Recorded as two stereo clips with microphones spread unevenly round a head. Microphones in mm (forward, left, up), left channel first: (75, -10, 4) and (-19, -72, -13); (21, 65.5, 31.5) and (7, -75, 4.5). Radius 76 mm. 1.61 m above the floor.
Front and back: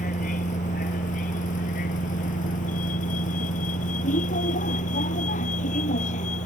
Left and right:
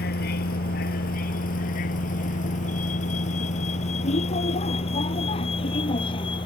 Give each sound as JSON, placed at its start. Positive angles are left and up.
{"t": 0.0, "sound": "a vehicle", "azimuth_deg": 65}